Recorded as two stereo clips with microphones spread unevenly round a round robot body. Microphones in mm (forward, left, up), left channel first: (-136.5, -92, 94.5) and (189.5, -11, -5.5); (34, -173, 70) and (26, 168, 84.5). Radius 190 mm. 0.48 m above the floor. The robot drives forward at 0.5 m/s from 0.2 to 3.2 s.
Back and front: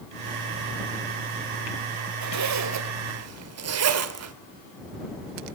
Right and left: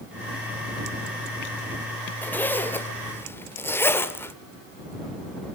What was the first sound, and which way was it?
A zipper, 5° right.